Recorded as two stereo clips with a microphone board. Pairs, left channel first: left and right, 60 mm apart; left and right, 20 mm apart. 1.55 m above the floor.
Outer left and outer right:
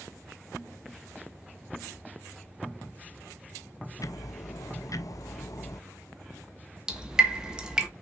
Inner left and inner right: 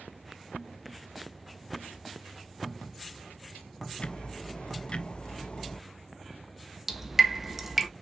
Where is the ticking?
65° left (ahead or behind), 0.7 m.